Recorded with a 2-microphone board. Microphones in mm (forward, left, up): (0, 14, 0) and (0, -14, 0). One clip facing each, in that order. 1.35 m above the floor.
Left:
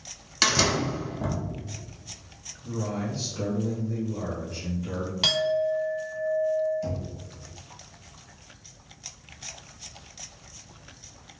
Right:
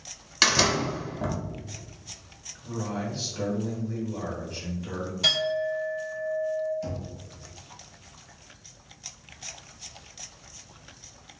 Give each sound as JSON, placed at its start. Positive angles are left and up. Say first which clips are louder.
{"t": 0.4, "sound": "a door slam", "louder": "right 1 dB", "side_deg": -10, "distance_m": 0.6}
{"t": 2.6, "sound": "a man speaking", "louder": "left 1 dB", "side_deg": -10, "distance_m": 1.2}
{"t": 5.2, "sound": "a clink", "louder": "left 1 dB", "side_deg": 60, "distance_m": 1.5}
{"t": 6.8, "sound": "knocking", "louder": "left 2 dB", "side_deg": -5, "distance_m": 1.3}